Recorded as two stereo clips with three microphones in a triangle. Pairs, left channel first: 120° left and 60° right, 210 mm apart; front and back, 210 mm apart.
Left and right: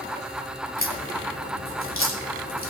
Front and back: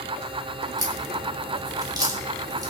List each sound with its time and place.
0.8 s a crack: 110° left, 3 m